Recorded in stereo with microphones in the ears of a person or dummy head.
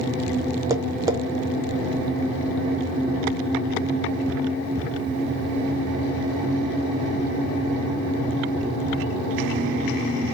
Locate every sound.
0.7 s tapping: 15° right (ahead or behind), 0.5 m